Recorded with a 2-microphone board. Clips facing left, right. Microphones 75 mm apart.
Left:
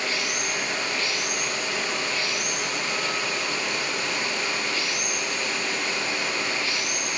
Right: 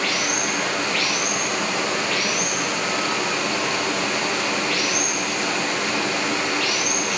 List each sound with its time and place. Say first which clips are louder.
0.0 s running water: right 5 dB; 80° right, 4.5 m